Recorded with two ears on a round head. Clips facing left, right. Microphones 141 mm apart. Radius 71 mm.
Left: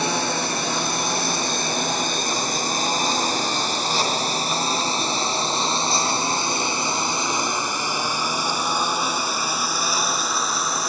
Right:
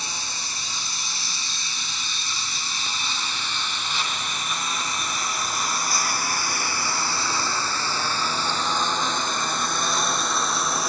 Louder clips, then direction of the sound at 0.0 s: Left 14 dB; 50° left (ahead or behind).